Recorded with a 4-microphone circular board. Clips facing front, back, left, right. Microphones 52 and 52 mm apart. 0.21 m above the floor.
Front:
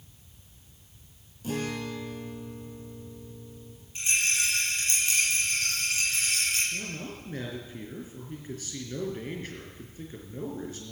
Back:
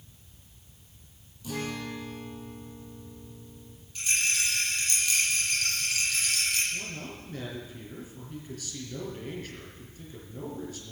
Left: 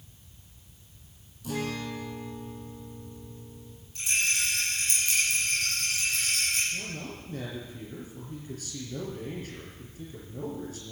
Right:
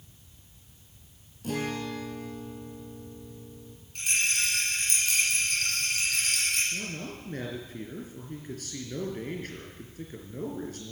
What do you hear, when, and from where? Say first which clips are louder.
1.4 s a guitar: front 2 dB, right 1 dB; 55° right, 3 m
4.0 s a rattle: front 1 dB, even; 65° right, 7 m
6.7 s a man speaking: front 1 dB, right 1 dB; 60° right, 4.5 m